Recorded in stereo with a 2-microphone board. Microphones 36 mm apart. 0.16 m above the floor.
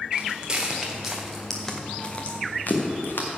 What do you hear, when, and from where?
0.1 s footsteps: 25° right (ahead or behind), 3 m; by 3.3 s 75° left (ahead or behind), 2.5 m